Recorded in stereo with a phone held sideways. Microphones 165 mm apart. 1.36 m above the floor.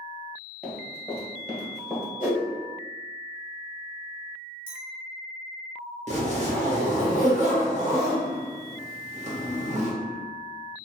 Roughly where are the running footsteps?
Centre.